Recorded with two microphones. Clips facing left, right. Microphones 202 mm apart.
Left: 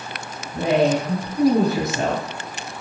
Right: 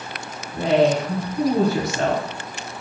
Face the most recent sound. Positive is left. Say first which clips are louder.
# right 1 dB
turn(degrees=20)  # may be behind; listen again after turning